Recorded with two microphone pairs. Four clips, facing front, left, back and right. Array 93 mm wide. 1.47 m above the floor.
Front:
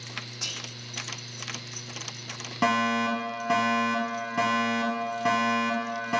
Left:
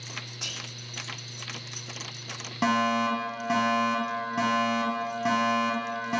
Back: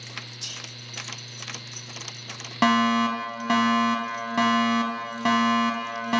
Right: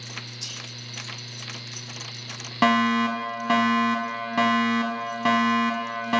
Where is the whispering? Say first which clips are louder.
Left 1 dB, front 2 dB; 45° left, 1.4 m.